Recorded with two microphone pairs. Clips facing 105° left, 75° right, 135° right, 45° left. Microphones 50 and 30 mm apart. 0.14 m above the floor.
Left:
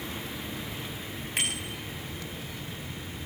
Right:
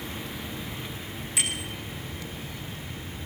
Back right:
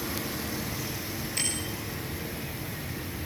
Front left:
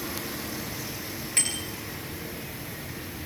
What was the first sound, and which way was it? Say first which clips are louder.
A bicycle bell: even, front left 3 dB; 65° left.